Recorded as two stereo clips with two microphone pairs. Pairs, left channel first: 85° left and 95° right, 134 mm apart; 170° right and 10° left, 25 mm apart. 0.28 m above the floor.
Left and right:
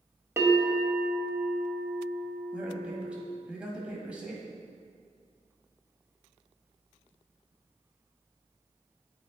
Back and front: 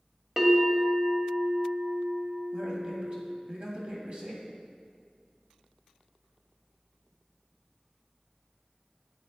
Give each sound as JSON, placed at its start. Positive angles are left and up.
{"t": 0.4, "sound": "a bell", "azimuth_deg": -45, "distance_m": 1.1}
{"t": 2.5, "sound": "a man speaking", "azimuth_deg": -15, "distance_m": 1.6}